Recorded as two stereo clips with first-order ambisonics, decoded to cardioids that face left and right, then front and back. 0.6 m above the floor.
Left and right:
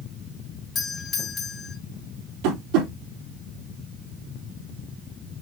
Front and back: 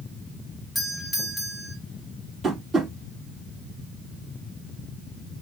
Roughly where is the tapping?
Right.